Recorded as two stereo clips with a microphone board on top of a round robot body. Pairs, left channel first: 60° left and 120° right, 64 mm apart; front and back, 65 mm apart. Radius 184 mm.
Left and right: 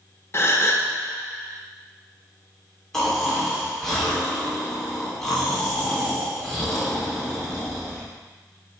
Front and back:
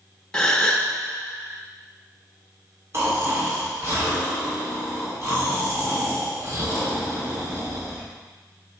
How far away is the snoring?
About 2.5 m.